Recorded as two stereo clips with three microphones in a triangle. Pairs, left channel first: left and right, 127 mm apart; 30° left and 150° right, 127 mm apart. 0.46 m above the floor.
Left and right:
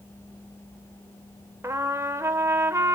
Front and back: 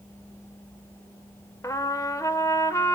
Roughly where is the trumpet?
Ahead right.